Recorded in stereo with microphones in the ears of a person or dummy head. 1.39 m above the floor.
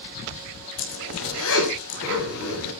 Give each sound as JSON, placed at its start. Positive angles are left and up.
{"t": 0.8, "sound": "a zipper", "side_deg": 80, "distance_m": 6.5}